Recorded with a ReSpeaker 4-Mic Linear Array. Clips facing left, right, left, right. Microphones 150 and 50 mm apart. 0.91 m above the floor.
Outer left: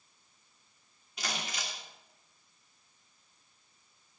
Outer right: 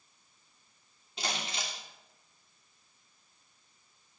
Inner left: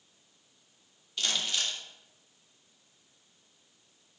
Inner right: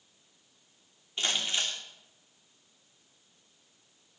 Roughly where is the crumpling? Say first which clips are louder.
Outer right 2 dB, inner right 1 dB; right.